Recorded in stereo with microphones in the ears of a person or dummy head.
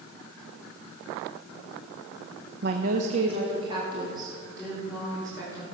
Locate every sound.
2.6 s a woman speaking: 65° right (ahead or behind), 0.8 m; by 5.8 s 20° right (ahead or behind), 4.5 m